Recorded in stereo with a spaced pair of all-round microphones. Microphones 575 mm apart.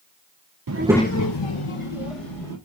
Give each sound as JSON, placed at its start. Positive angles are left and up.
{"t": 0.7, "sound": "a child speaking", "side_deg": -35, "distance_m": 0.5}